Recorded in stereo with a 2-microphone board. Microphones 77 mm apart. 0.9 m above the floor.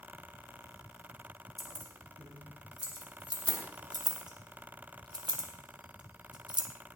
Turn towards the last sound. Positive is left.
turn(degrees=-85)